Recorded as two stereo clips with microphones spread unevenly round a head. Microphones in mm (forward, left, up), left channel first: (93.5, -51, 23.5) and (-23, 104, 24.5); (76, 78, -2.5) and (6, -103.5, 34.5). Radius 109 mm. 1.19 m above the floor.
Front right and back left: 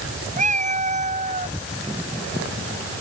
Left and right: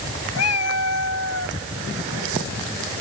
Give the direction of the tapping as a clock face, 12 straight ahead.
No tapping in this recording.